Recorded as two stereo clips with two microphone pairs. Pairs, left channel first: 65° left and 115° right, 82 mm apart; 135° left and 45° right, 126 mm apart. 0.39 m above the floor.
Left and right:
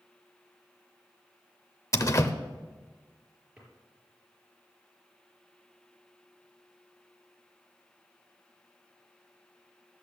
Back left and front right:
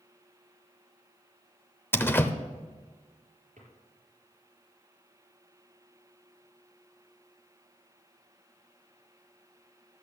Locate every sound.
1.9 s a door slam: 65° left, 0.7 m
3.6 s a drawer: 30° right, 4 m